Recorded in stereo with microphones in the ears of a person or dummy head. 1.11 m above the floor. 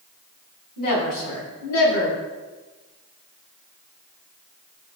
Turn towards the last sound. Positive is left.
turn(degrees=80)